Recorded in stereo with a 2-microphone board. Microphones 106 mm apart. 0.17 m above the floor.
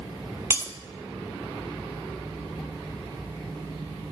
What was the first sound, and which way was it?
Breaking glass, 25° right (ahead or behind).